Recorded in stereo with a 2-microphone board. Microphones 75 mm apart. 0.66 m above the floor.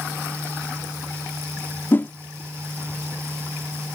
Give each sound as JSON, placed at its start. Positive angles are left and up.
{"t": 1.9, "sound": "a whoosh", "side_deg": 30}